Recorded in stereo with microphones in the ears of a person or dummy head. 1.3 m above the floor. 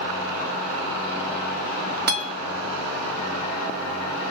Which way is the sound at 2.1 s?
50° right (ahead or behind).